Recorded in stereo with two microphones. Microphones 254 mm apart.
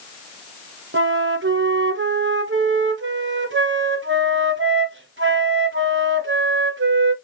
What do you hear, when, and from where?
0.9 s a flute: 55° right (ahead or behind), 0.5 m